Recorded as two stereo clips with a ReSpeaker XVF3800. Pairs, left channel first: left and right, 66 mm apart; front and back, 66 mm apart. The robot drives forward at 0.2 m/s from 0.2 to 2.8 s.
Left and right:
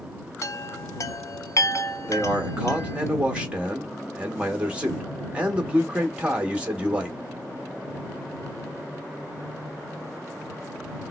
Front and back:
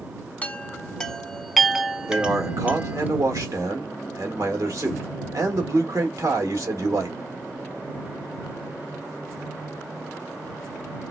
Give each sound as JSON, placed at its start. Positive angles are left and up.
{"t": 0.4, "sound": "a chime", "azimuth_deg": 60, "distance_m": 0.6}
{"t": 2.1, "sound": "a man speaking", "azimuth_deg": -155, "distance_m": 1.4}